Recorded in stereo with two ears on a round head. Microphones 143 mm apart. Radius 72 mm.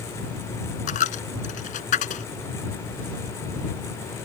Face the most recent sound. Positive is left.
turn(degrees=50)  # may be behind; listen again after turning